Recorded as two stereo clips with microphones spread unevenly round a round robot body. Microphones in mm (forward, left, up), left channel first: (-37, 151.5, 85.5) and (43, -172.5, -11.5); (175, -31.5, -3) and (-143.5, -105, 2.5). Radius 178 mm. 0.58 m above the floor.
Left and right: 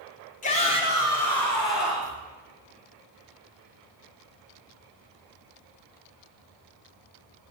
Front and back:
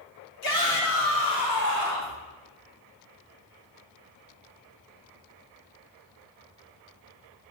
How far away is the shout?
About 1.6 m.